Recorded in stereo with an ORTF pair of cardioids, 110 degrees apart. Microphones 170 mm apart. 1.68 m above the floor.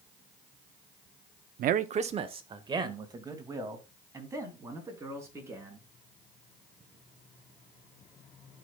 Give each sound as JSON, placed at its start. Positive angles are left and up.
{"t": 1.6, "sound": "a man speaking", "azimuth_deg": -65, "distance_m": 0.7}